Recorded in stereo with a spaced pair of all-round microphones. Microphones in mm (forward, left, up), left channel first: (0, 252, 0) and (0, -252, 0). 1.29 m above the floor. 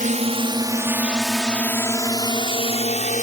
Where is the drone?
15° right (ahead or behind); by 3.2 s 15° left (ahead or behind).